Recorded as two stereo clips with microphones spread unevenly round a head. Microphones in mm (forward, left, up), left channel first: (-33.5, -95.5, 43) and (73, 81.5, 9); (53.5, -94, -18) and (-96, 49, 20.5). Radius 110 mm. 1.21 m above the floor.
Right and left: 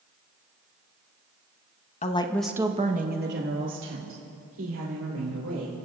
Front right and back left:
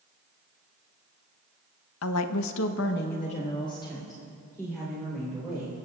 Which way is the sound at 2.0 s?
65° right.